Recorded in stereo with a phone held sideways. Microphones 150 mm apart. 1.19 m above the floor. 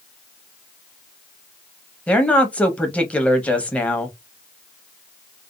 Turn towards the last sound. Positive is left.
turn(degrees=10)  # may be behind; listen again after turning